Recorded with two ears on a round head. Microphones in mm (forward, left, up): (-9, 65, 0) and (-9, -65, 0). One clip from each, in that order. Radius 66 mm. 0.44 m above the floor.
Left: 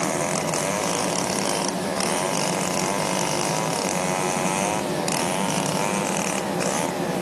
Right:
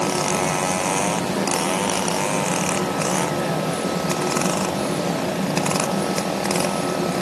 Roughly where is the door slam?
No door slam in this recording.